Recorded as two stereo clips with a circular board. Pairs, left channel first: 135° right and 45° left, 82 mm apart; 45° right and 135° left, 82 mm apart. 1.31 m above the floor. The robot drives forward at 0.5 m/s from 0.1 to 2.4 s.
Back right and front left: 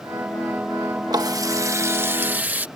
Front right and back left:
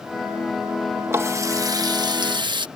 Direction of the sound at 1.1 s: 75° left.